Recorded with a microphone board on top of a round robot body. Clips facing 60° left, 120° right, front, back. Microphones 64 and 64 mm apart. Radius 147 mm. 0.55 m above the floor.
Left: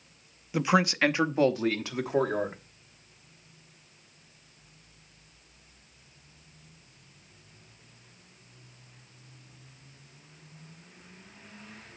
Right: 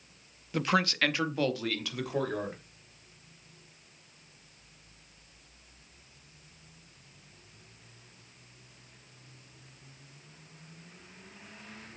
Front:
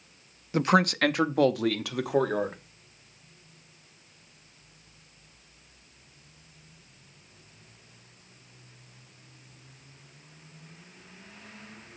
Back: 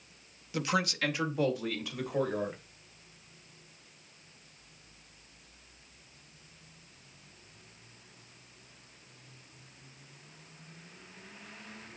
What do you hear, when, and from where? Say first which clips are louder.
0.5 s a man speaking: left 3 dB, front 8 dB; 15° right, 0.7 m; by 2.6 s straight ahead, 1.8 m